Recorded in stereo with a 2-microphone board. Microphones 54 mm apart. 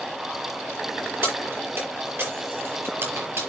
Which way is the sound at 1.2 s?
45° right (ahead or behind).